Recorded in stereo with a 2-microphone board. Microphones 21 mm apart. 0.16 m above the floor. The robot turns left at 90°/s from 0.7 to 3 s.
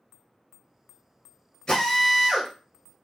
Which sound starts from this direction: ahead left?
A drill, at 1.7 s.